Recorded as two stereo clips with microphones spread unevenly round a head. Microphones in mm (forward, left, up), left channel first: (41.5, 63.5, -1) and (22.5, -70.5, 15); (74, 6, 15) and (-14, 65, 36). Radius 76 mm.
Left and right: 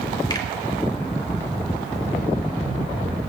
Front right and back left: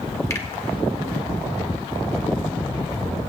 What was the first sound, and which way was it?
A finger snap, 25° left.